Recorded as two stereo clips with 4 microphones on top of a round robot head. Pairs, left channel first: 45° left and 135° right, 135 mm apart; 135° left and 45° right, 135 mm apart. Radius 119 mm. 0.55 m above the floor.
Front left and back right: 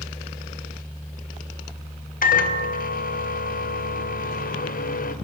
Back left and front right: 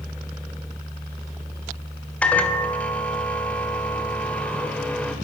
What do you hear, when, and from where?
2.2 s a microwave: 55° left, 2 m